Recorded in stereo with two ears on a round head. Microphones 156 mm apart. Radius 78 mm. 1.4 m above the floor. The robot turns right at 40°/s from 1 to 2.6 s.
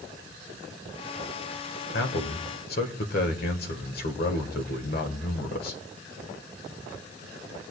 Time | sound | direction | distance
1.9 | a man speaking | 75° left (ahead or behind) | 1.5 m